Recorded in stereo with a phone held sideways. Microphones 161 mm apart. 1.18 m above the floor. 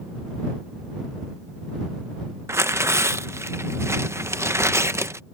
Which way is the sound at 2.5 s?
15° right (ahead or behind).